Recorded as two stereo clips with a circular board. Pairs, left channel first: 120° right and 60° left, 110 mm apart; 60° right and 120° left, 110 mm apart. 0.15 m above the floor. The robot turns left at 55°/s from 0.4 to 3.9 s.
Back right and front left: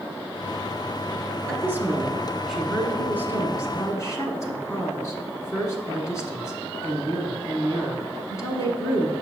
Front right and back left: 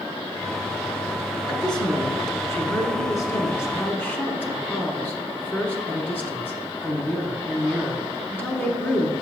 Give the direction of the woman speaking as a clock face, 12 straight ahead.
11 o'clock.